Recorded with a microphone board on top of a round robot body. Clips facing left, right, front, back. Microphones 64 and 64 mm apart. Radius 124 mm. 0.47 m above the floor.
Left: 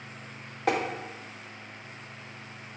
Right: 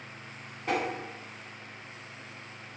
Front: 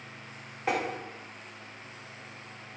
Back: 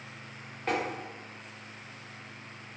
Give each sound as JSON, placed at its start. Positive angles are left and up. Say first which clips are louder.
{"t": 0.7, "sound": "tapping", "louder": "left 3 dB, front 1 dB", "azimuth_deg": 80, "distance_m": 0.8}